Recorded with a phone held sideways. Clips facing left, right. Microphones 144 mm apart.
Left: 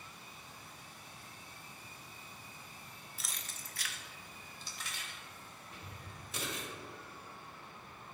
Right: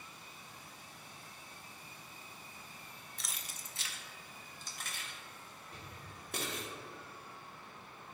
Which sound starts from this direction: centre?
Keys jangling, at 3.2 s.